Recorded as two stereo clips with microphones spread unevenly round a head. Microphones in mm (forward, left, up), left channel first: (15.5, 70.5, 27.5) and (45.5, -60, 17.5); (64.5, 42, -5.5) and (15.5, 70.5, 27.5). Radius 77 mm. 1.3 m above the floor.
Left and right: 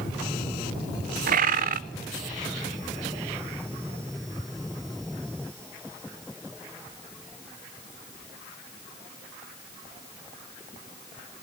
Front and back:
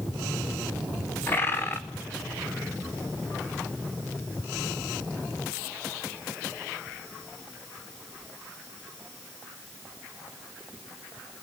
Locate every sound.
1.3 s a bird: 75° right, 0.7 m